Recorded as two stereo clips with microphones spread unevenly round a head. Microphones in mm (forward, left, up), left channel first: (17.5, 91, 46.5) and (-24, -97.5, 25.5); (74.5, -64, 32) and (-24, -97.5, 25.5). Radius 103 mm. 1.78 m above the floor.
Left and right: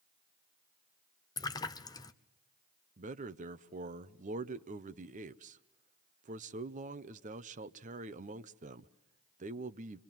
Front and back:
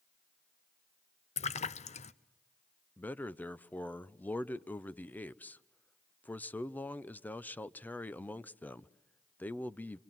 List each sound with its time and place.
1.4 s a splash: 5° left, 0.9 m
3.0 s a man speaking: 50° right, 0.7 m